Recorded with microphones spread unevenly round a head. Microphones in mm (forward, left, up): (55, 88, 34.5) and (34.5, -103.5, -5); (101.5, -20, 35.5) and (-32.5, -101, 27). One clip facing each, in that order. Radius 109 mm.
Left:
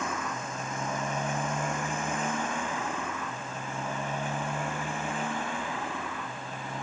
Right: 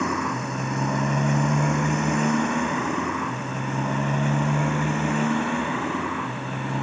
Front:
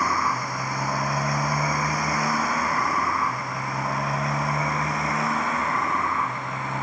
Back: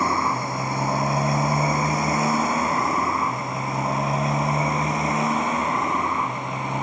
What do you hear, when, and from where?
0.0 s a motorcycle: 85° right; by 6.8 s 80° right